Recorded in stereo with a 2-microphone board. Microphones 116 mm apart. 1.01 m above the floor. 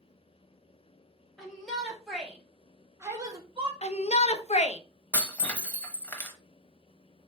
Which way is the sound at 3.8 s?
75° left (ahead or behind).